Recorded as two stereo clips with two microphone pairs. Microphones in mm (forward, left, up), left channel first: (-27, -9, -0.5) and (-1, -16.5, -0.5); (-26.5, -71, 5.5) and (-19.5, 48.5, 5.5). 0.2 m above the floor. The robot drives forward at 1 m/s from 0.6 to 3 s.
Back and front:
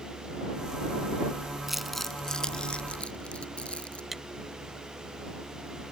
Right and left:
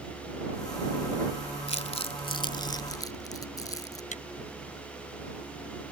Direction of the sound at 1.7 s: 95° right.